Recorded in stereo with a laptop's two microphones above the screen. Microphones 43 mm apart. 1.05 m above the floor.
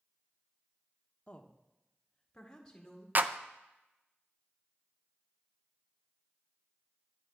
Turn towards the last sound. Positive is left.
turn(degrees=-45)  # may be behind; listen again after turning